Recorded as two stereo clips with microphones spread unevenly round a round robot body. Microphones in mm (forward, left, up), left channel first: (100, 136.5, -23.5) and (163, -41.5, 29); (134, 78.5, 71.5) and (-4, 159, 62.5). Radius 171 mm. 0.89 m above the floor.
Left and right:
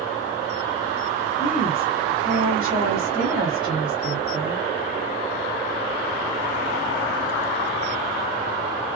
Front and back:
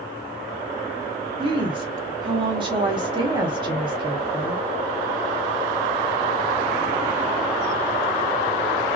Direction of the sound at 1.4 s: 175° right.